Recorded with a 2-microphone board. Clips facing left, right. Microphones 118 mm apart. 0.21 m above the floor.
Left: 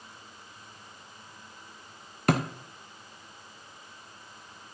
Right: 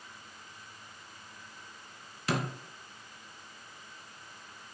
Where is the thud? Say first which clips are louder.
Left 7 dB; 55° left (ahead or behind), 1.3 m.